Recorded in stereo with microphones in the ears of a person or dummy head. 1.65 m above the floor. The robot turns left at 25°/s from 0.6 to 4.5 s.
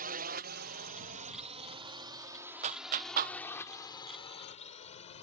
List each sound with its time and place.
0.0 s a drone: 40° right (ahead or behind); by 5.2 s 35° left (ahead or behind)
2.6 s a clap: 40° right (ahead or behind); by 3.4 s 55° right (ahead or behind)